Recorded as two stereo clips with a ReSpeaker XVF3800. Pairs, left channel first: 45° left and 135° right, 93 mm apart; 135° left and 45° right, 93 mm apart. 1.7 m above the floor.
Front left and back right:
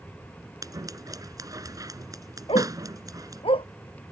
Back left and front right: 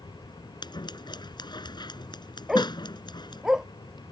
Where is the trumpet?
I don't hear a trumpet.